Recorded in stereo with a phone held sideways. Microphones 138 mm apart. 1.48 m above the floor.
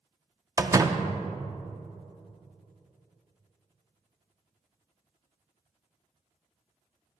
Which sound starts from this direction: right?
A door slam, at 0.6 s.